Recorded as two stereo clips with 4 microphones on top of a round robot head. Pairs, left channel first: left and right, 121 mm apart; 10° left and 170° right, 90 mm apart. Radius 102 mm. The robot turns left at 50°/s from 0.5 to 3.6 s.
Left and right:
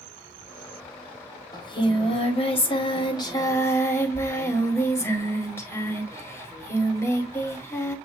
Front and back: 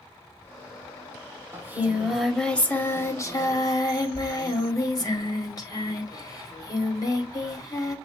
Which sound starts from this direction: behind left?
Singing, at 1.5 s.